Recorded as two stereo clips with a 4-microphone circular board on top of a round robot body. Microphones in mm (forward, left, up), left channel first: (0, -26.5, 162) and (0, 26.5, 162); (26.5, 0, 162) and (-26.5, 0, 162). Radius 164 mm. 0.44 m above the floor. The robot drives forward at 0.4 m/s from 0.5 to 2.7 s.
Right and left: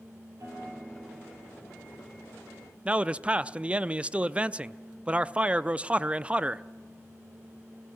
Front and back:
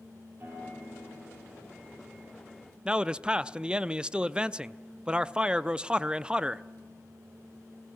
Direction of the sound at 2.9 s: 130° left.